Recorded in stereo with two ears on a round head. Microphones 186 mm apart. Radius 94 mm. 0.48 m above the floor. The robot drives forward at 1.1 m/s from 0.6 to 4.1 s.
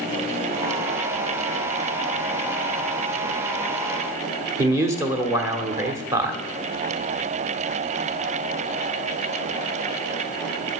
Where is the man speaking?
15° right (ahead or behind), 1.3 m.